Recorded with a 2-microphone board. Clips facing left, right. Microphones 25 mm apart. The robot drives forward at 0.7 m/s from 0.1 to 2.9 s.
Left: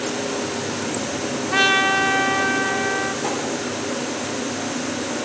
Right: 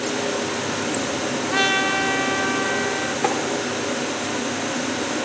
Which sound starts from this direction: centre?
A trumpet, at 1.5 s.